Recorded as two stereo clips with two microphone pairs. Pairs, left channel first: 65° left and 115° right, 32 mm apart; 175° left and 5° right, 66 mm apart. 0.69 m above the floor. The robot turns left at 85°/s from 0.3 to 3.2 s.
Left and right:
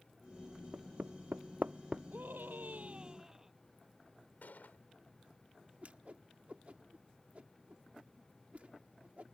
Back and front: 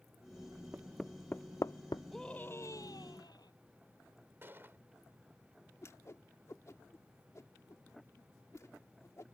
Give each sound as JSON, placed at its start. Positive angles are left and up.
{"t": 0.7, "sound": "hammering", "azimuth_deg": -75}
{"t": 2.1, "sound": "a scream", "azimuth_deg": -95}
{"t": 4.4, "sound": "a gunshot", "azimuth_deg": 50}
{"t": 5.8, "sound": "a whoosh", "azimuth_deg": -150}